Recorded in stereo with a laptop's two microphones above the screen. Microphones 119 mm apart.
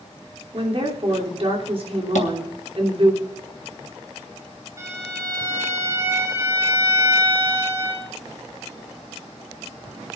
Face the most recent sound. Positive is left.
turn(degrees=-30)  # may be behind; listen again after turning